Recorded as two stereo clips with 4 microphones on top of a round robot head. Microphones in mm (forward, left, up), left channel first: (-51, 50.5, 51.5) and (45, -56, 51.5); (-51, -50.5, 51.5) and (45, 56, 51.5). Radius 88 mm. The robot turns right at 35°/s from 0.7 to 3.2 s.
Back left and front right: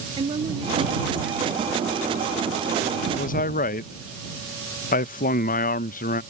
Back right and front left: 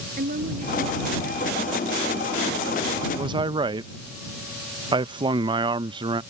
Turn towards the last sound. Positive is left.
turn(degrees=105)